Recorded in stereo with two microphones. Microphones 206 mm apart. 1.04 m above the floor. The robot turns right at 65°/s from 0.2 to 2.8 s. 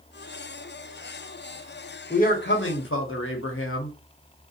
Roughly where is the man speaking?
Ahead left.